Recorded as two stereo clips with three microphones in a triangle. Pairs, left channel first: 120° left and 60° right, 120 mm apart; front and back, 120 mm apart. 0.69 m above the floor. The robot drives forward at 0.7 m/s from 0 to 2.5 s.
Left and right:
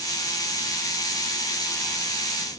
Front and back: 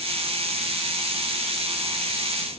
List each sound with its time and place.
Only background noise.